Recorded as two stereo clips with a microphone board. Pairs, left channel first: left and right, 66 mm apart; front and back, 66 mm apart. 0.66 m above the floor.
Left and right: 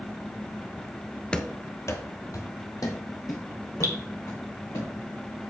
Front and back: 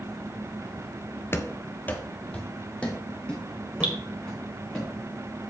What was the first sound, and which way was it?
Running footsteps, 25° left.